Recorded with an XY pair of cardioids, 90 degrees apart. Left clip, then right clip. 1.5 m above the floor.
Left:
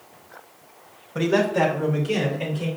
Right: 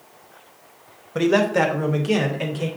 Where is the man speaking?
35° right, 1.1 m; by 2.7 s 75° right, 1.9 m.